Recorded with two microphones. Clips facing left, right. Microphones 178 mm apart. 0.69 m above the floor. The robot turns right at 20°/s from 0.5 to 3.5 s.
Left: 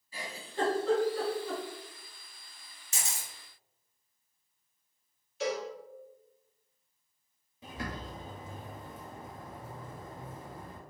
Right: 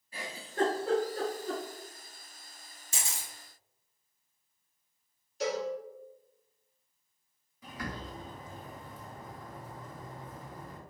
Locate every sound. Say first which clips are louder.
0.1 s a giggle: right 3 dB; 60° right (ahead or behind), 1.5 m; by 1.6 s 40° right (ahead or behind), 1.5 m
2.9 s a camera shutter: even; 35° right (ahead or behind), 1.7 m; by 3.3 s 30° right (ahead or behind), 1.7 m
5.4 s a cowbell: right 1 dB; 40° right (ahead or behind), 1.4 m
7.6 s a bird: left 1 dB; 25° left (ahead or behind), 0.7 m